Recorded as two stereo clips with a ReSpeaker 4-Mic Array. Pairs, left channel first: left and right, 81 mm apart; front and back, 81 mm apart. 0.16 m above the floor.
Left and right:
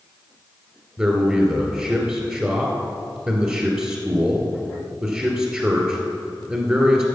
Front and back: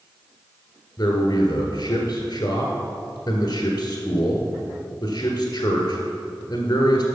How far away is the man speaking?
About 1.4 m.